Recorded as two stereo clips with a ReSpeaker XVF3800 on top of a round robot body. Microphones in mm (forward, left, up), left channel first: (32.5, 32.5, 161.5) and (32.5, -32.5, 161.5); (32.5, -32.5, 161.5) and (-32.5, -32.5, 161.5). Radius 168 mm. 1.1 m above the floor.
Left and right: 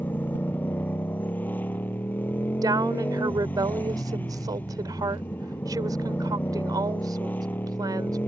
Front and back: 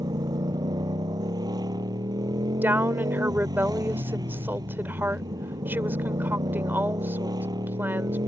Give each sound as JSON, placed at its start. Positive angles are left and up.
{"t": 0.0, "sound": "a motorcycle", "azimuth_deg": 155}
{"t": 2.6, "sound": "a woman speaking", "azimuth_deg": -120}